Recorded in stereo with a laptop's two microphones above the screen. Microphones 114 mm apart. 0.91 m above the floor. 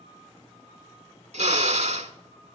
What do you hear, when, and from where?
1.3 s a drill: 65° right (ahead or behind), 1.3 m